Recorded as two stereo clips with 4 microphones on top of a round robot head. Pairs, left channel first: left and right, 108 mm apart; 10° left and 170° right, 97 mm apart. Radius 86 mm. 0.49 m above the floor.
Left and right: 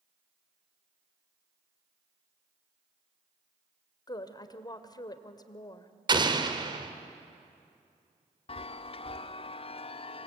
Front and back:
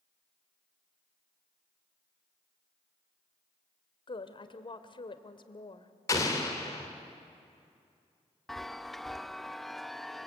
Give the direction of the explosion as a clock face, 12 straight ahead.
2 o'clock.